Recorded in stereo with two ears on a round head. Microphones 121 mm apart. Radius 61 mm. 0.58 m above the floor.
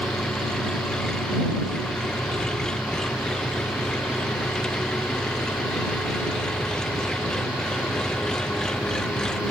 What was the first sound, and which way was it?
An engine running, 5° left (ahead or behind).